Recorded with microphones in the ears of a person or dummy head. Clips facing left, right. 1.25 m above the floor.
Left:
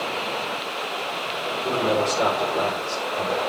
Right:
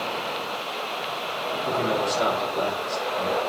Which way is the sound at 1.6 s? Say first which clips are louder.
Left 3 dB; 85° left.